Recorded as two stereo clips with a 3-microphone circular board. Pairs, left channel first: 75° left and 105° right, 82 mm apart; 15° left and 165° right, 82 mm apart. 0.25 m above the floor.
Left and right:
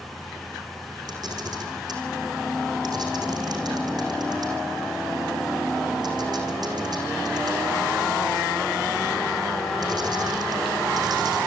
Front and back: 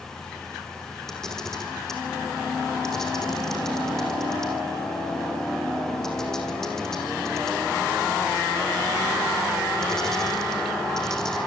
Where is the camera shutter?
70° right, 5.5 m.